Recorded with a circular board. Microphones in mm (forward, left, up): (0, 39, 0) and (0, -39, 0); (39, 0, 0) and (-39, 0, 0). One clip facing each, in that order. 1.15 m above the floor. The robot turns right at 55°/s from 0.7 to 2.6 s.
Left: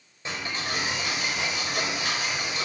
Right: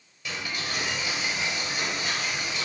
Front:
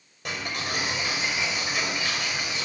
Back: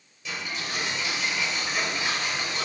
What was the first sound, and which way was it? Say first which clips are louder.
Ticking: left 2 dB, front 2 dB; 35° left.